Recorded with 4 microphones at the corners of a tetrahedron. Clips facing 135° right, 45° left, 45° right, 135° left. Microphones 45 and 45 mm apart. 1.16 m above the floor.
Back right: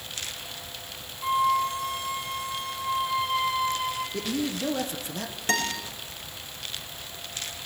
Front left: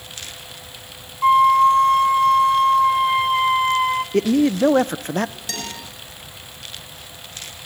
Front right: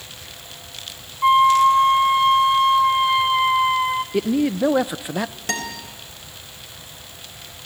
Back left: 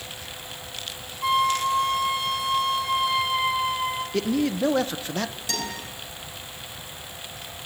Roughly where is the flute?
Ahead.